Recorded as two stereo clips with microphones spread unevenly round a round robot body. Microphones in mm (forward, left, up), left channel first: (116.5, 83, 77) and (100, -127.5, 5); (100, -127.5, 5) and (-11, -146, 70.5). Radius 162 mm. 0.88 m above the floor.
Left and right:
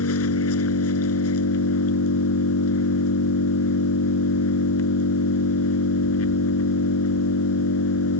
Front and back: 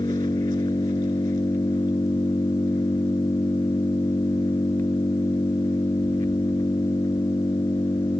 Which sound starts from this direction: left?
An engine running, at 0.0 s.